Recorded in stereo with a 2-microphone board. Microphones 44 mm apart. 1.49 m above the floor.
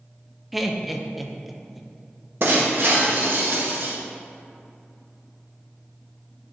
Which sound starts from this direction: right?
Breaking glass, at 2.4 s.